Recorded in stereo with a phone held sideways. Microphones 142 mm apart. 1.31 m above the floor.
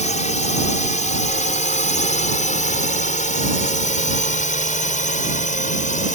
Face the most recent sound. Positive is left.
turn(degrees=65)  # may be behind; listen again after turning